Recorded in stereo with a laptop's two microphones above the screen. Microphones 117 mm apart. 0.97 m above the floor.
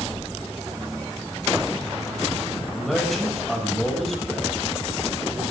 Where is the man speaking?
5° left (ahead or behind), 6.5 m.